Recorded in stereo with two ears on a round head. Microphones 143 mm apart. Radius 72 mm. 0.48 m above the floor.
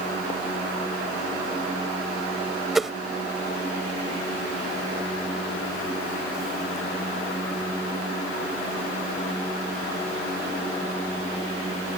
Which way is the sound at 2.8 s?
Centre (ahead or behind).